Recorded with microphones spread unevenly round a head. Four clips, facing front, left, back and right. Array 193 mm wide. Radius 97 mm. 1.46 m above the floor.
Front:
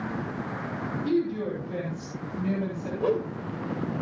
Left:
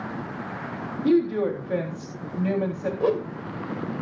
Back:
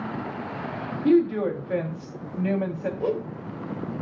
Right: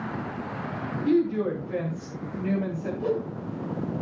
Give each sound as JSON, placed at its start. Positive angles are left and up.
{"t": 1.0, "sound": "a woman speaking", "azimuth_deg": 145, "distance_m": 3.5}
{"t": 3.0, "sound": "a whoosh", "azimuth_deg": 90, "distance_m": 1.4}